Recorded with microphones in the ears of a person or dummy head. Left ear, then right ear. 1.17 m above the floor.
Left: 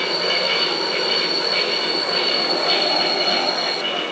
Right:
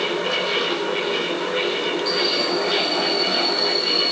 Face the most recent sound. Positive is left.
turn(degrees=70)  # may be behind; listen again after turning